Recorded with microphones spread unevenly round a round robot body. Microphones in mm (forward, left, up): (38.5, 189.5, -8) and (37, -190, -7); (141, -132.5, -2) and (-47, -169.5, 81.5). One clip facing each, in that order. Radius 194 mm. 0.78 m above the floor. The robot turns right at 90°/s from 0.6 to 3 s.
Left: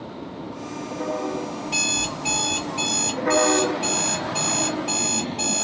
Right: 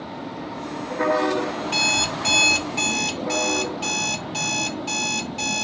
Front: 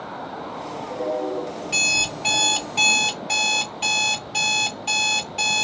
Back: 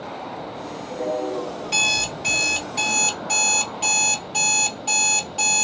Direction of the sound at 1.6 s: 175° left.